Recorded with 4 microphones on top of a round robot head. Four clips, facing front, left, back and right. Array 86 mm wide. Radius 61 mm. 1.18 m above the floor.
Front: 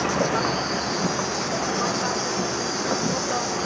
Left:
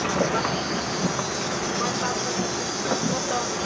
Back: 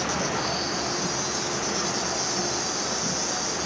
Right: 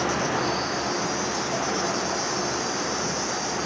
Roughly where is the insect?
Ahead left.